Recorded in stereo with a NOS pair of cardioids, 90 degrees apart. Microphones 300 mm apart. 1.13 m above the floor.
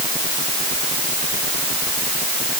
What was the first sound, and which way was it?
Only background noise.